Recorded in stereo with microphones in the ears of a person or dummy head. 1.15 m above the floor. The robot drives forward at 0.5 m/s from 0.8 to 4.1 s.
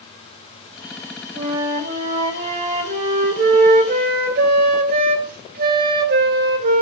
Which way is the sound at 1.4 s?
30° right (ahead or behind).